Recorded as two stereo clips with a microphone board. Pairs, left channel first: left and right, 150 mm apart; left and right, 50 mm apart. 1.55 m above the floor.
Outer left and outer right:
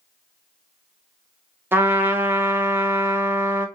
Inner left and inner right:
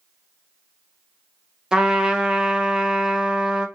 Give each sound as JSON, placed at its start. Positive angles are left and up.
{"t": 1.7, "sound": "a trumpet", "side_deg": -15, "distance_m": 0.5}